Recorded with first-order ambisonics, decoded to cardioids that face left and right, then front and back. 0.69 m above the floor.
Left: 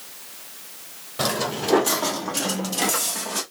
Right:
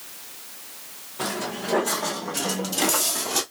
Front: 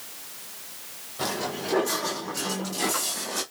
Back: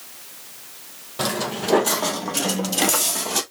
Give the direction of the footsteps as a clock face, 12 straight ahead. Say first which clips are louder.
Left 5 dB, back 5 dB; 8 o'clock.